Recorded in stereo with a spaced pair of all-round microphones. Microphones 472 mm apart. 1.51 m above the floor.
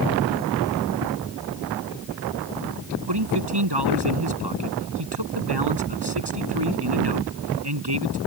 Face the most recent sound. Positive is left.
turn(degrees=-55)  # may be behind; listen again after turning